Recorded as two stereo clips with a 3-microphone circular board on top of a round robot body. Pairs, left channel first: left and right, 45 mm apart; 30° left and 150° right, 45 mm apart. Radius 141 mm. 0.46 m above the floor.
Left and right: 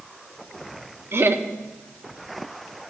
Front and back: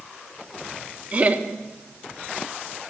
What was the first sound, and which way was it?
Laughter, 95° right.